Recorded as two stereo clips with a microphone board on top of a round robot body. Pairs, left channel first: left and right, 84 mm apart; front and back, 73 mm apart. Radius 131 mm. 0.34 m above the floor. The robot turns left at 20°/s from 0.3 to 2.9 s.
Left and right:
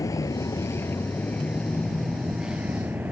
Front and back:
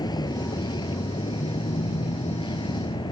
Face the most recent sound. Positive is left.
turn(degrees=-15)